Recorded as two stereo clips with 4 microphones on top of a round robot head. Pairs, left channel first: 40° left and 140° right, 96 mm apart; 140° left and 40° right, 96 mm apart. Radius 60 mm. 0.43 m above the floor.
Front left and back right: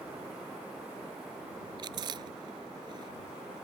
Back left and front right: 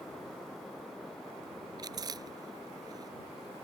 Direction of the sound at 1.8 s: 90° right.